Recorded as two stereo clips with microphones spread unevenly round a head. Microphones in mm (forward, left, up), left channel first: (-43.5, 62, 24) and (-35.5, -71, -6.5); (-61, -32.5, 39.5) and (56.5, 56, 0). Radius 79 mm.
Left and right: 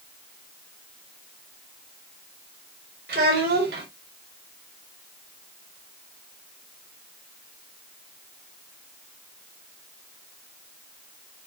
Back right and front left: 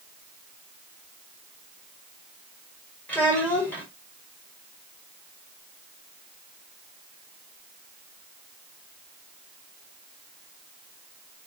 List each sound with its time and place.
3.1 s a child speaking: 65° right, 4 m